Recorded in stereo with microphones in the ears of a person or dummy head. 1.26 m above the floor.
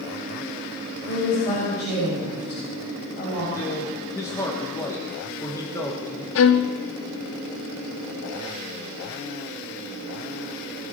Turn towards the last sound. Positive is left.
turn(degrees=70)  # may be behind; listen again after turning